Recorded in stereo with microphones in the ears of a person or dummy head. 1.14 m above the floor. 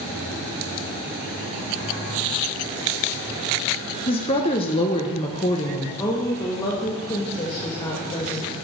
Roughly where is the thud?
I don't hear a thud.